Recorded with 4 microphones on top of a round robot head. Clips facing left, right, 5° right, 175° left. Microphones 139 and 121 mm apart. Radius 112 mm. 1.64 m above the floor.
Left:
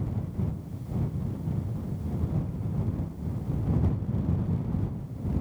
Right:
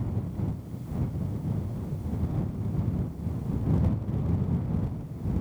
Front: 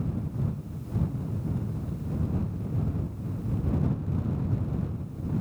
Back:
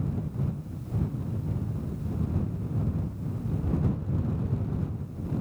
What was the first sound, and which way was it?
Only background noise.